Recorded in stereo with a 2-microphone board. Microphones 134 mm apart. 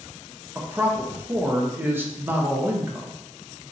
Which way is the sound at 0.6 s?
15° right (ahead or behind).